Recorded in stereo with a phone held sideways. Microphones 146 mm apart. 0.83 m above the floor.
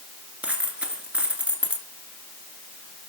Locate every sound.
0.4 s a dropped coin: 10° right (ahead or behind), 1.7 m